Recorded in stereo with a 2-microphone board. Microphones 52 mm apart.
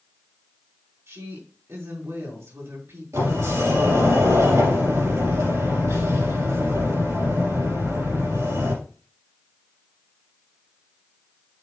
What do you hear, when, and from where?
1.1 s a woman speaking: 70° right (ahead or behind), 3.5 m
3.1 s a sliding door: 80° right, 4 m